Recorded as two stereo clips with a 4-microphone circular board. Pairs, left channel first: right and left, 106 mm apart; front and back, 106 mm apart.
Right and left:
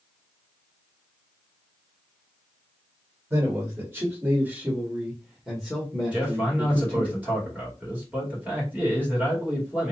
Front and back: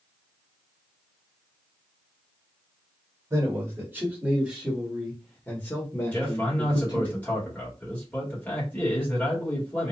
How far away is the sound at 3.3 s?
About 1.5 m.